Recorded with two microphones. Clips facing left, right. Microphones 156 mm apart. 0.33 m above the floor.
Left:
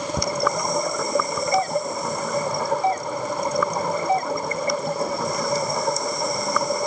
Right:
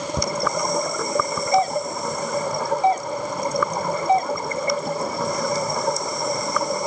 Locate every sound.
1.5 s a doorbell: 20° right (ahead or behind)